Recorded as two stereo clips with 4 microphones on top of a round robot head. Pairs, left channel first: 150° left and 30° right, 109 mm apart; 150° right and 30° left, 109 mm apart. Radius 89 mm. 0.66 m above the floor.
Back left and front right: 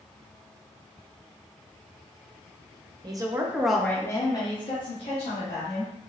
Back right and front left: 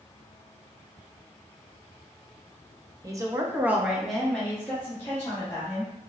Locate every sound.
3.0 s a woman speaking: 10° right, 1.2 m; by 5.9 s 145° left, 2.5 m